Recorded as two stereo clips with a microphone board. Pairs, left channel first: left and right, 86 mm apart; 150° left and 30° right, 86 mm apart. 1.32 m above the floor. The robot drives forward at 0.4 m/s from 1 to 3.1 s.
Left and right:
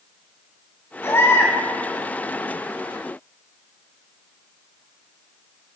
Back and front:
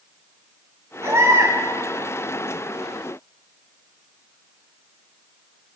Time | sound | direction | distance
1.0 | a baby crying | 30° left | 6.5 m